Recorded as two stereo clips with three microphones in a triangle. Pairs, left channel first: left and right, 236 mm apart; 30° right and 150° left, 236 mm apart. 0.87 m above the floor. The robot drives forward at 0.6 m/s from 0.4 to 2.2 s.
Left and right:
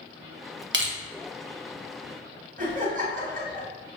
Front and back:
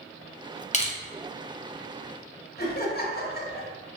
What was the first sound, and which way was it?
Crushing, 85° right.